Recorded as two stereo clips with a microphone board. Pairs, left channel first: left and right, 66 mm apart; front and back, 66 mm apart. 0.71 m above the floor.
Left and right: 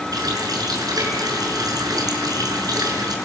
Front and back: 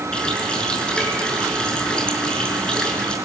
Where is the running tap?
75° right, 6 m.